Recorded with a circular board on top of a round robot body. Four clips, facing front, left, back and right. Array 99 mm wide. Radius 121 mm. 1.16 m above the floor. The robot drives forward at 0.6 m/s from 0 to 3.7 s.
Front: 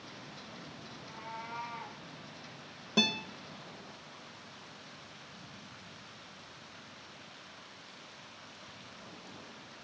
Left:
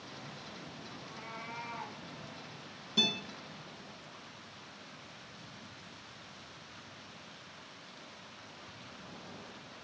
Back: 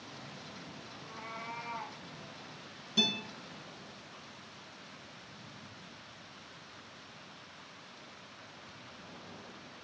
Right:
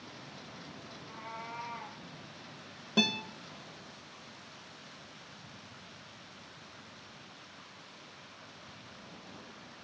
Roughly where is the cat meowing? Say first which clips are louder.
Right 3 dB, front 1 dB; behind left.